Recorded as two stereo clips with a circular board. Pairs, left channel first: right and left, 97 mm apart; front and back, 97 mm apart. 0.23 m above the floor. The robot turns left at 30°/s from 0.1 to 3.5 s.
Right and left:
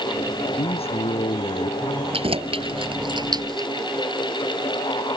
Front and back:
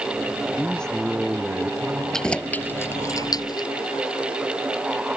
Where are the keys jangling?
85° left; by 3.7 s 45° left.